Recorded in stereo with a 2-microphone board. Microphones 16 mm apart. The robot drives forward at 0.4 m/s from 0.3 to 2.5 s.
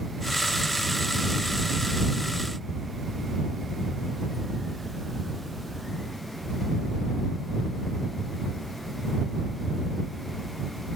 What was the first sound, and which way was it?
Only background noise.